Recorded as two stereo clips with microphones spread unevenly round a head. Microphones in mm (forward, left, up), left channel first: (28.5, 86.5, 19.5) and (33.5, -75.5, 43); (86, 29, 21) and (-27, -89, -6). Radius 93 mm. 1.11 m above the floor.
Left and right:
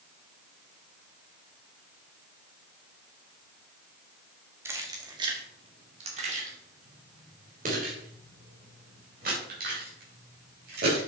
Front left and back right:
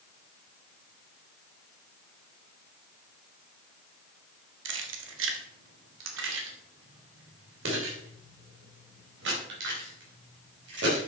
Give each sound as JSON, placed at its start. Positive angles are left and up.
{"t": 4.7, "sound": "keys jangling", "azimuth_deg": -165, "distance_m": 1.2}